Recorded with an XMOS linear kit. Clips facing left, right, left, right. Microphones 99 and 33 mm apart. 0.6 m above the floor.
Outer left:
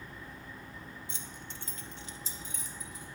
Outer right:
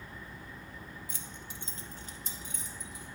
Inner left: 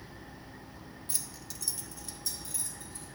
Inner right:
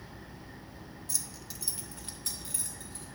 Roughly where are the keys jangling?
Left.